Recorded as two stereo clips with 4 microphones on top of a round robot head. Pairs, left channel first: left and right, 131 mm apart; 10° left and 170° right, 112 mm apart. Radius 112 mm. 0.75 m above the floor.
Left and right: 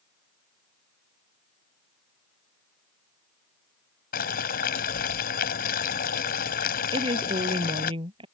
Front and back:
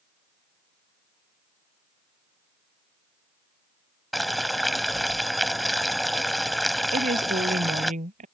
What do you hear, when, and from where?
4.1 s boiling: 100° left
6.9 s a woman speaking: 145° right